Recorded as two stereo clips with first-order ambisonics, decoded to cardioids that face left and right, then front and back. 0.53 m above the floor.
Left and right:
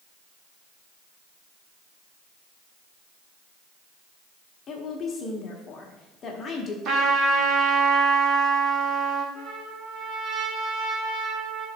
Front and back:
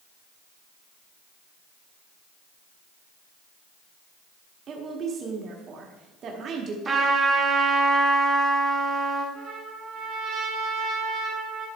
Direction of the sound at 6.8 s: 120° right.